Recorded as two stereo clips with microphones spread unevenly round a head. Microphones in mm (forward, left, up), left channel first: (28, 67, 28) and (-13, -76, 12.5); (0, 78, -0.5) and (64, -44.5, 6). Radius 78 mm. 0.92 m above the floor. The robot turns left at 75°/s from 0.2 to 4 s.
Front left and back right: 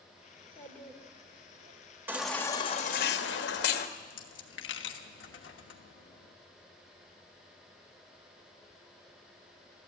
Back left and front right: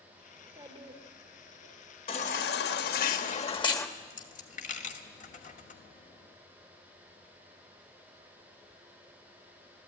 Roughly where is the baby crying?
Behind.